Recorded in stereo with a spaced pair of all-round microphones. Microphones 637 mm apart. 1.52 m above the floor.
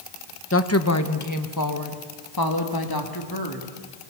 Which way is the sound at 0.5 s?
20° left (ahead or behind).